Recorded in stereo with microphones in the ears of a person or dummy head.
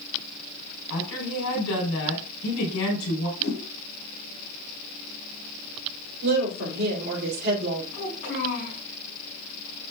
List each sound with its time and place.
0.9 s a woman speaking: 85° left, 4 m
3.4 s a whoosh: 75° left (ahead or behind), 5 m
6.2 s a woman speaking: 55° right (ahead or behind), 3 m
7.9 s a child speaking: 50° left (ahead or behind), 6.5 m